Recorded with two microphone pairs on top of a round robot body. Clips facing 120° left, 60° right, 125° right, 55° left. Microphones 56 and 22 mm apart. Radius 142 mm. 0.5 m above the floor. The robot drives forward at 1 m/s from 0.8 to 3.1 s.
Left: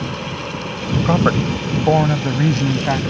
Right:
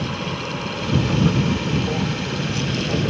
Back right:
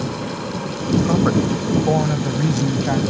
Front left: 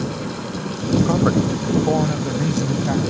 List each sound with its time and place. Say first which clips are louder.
1.1 s a man speaking: left 6 dB, back right 2 dB; 145° left; by 3.0 s 160° left